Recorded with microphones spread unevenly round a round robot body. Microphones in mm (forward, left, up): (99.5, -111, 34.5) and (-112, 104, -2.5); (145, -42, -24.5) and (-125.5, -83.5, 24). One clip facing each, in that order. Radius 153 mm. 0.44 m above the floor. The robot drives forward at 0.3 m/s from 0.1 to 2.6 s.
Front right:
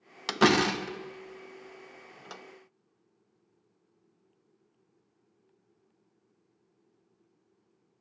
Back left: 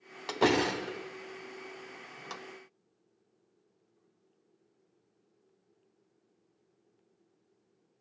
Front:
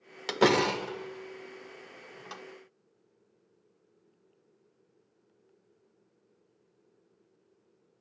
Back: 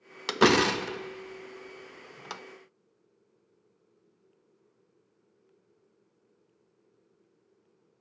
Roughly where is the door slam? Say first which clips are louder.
Front right 3 dB, back 2 dB; right.